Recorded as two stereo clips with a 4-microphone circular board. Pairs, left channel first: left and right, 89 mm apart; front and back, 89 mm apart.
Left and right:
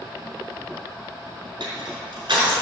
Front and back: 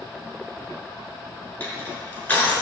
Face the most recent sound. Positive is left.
turn(degrees=-65)